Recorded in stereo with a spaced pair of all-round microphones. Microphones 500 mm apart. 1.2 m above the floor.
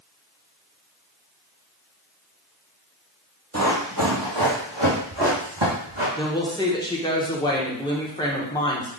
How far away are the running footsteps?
About 1.4 m.